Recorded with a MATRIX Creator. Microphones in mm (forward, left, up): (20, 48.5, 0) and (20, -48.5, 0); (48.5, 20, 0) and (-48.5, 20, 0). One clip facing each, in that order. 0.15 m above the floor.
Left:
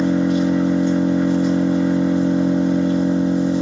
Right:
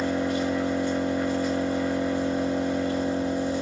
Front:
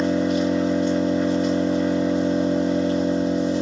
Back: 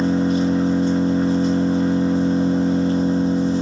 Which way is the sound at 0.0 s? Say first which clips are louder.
Left 8 dB, back 2 dB; 150° left.